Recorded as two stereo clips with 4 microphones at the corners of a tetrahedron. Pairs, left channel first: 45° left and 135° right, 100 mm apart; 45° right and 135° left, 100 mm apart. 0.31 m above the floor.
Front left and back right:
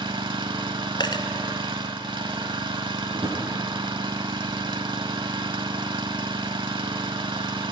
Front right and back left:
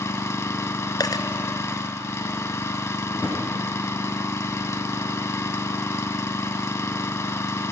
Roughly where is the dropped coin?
Ahead.